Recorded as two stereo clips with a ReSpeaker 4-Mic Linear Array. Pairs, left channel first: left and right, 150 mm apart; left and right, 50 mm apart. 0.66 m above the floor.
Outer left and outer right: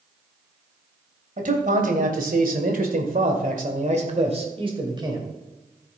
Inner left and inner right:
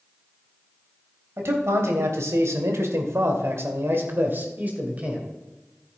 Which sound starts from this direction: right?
A man speaking, at 1.4 s.